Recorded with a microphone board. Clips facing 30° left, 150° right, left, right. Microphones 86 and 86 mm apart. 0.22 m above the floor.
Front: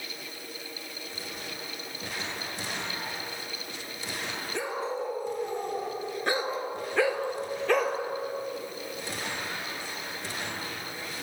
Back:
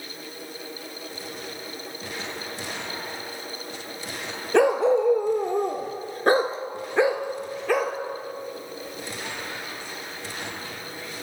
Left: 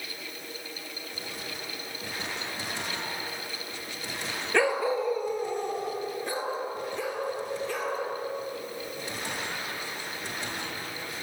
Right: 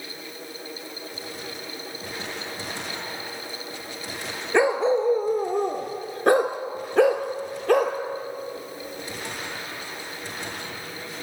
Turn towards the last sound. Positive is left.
turn(degrees=-60)